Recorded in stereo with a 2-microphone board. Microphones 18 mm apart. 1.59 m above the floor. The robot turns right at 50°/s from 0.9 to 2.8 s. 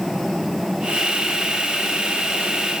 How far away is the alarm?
No alarm in this recording.